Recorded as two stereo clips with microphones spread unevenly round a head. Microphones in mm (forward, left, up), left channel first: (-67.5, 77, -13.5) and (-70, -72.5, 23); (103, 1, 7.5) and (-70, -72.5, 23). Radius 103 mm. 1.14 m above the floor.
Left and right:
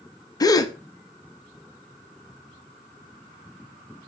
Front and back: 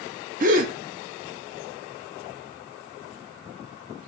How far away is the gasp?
About 0.6 m.